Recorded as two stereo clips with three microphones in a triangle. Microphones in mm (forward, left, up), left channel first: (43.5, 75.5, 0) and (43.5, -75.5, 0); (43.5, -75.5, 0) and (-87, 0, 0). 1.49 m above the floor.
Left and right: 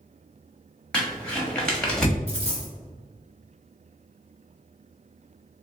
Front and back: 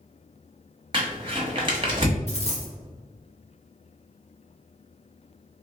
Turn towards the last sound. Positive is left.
turn(degrees=-55)